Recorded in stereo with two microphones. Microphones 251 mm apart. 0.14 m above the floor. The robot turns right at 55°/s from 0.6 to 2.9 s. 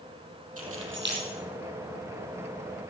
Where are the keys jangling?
65° right (ahead or behind), 3 m; by 1.3 s 35° right (ahead or behind), 3 m.